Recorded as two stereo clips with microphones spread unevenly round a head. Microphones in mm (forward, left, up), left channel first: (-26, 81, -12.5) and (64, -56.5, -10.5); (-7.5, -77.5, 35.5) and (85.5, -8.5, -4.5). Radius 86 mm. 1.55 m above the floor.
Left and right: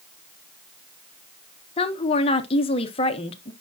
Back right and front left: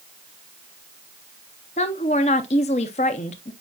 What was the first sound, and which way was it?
A woman speaking, straight behind.